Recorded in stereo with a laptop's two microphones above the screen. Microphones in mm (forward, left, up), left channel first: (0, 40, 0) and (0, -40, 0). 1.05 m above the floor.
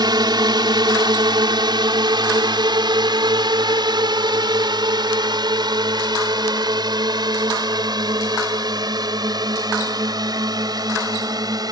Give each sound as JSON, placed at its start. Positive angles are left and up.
{"t": 0.0, "sound": "a drone", "side_deg": -70}